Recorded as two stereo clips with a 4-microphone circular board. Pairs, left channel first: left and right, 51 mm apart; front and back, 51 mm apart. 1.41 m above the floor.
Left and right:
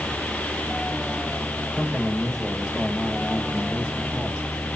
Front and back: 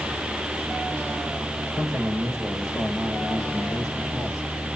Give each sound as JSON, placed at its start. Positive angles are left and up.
{"t": 1.8, "sound": "a man speaking", "azimuth_deg": -15, "distance_m": 6.0}